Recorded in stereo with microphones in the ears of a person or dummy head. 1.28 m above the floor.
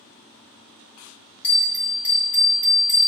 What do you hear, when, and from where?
1.4 s a bell: 10° left (ahead or behind), 1.6 m